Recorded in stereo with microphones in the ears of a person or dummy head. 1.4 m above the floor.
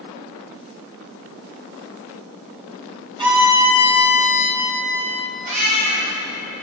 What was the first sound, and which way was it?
A violin, 25° right (ahead or behind).